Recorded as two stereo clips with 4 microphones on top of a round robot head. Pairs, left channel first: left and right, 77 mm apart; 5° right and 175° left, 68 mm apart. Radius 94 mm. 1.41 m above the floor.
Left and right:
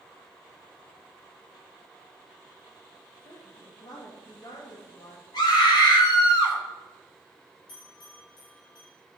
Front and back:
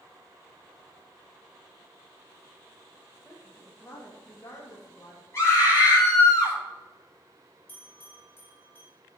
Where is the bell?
55° left, 3.5 m.